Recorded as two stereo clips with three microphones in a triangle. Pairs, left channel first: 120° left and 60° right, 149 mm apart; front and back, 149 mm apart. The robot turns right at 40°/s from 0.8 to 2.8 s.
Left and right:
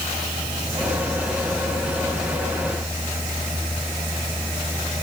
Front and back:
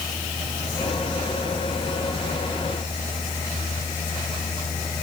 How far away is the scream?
No scream in this recording.